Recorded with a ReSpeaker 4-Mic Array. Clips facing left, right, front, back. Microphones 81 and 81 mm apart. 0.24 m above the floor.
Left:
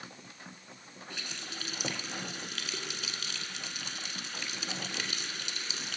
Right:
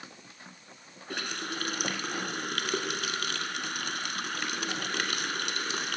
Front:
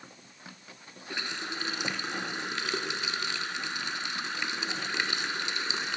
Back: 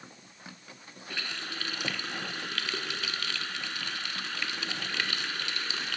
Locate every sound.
1.1 s a running tap: 70° right, 1.7 m